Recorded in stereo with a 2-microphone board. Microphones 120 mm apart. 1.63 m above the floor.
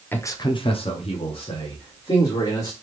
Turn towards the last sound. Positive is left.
turn(degrees=45)  # may be behind; listen again after turning